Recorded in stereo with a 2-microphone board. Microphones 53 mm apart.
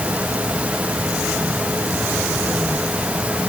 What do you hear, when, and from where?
Only background noise.